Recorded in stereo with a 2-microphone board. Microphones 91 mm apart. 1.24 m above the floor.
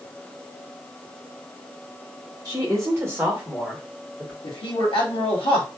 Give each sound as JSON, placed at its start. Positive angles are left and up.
{"t": 2.5, "sound": "a woman speaking", "side_deg": -40, "distance_m": 1.3}
{"t": 4.4, "sound": "a man speaking", "side_deg": 85, "distance_m": 0.9}